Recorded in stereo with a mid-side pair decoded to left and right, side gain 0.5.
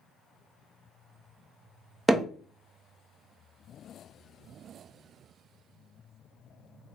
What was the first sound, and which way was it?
Hammering, 10° right.